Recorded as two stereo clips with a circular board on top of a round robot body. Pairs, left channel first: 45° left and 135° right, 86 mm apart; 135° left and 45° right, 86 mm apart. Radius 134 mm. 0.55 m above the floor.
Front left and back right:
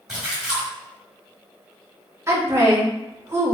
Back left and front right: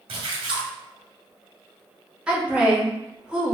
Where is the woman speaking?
115° right, 1.4 m.